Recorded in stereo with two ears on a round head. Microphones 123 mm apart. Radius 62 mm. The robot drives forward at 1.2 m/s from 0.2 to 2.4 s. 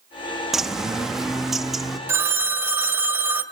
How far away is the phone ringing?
About 1.3 m.